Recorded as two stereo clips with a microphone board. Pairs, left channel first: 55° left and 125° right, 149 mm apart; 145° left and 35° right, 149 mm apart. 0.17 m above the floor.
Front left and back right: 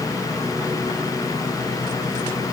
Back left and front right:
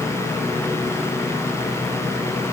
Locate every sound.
Only background noise.